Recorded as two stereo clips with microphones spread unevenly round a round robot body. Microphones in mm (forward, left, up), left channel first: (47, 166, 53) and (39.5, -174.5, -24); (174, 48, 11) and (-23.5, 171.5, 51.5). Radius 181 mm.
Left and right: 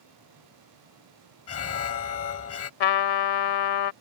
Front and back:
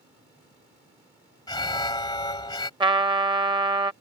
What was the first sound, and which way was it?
An alarm, 35° left.